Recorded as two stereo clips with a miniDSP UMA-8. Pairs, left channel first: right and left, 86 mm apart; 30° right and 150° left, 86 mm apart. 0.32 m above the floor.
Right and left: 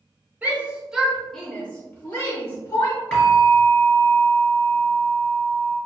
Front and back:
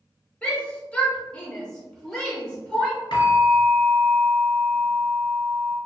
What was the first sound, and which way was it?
A shout, 35° left.